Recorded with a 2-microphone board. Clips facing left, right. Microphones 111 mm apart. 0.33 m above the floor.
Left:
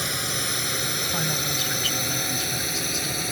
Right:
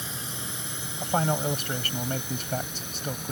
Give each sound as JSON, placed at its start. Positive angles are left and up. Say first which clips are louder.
{"t": 0.0, "sound": "a drone", "louder": "left 7 dB", "side_deg": 75}
{"t": 1.0, "sound": "a man speaking", "louder": "right 9 dB", "side_deg": -50}